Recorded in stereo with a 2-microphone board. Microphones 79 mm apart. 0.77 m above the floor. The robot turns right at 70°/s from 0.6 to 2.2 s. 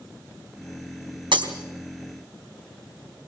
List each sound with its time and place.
1.3 s breaking glass: 85° right, 3 m; by 1.5 s 80° right, 3 m